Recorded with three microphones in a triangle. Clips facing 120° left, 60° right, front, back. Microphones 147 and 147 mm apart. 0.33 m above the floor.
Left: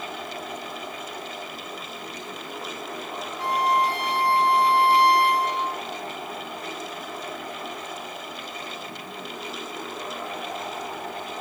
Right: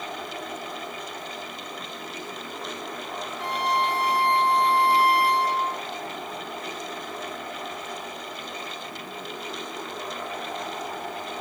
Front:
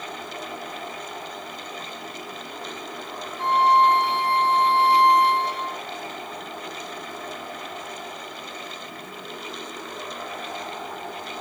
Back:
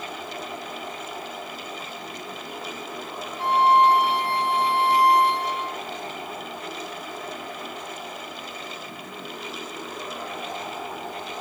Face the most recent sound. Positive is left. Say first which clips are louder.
# left 3 dB, even
turn(degrees=75)